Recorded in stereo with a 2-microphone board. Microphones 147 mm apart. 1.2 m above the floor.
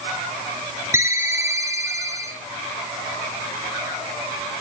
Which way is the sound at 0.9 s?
20° right (ahead or behind).